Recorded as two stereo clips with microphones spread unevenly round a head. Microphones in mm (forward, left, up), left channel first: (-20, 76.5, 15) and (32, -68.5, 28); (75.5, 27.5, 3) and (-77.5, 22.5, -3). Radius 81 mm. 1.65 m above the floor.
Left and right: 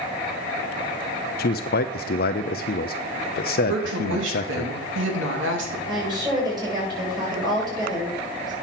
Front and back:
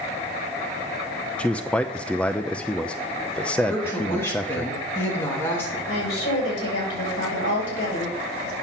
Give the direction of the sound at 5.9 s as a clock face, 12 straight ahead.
12 o'clock.